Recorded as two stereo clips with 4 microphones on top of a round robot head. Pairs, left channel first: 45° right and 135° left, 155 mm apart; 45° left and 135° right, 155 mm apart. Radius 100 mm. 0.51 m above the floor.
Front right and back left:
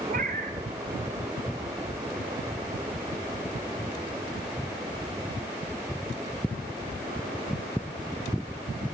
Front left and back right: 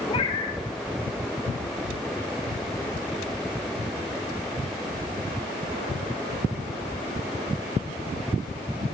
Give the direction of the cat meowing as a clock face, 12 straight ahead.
9 o'clock.